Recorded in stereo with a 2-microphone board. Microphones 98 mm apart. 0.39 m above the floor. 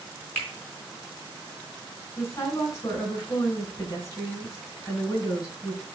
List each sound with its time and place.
0.3 s a finger snap: 20° left (ahead or behind), 3.5 m
2.2 s a woman speaking: 35° left (ahead or behind), 3 m